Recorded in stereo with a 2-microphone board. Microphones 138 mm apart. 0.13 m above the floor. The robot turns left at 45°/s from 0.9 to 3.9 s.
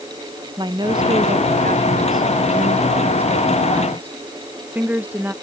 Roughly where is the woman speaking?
Ahead right.